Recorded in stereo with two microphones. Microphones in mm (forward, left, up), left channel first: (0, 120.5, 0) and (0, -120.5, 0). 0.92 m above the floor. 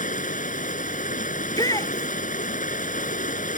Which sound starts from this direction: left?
Running water, at 0.0 s.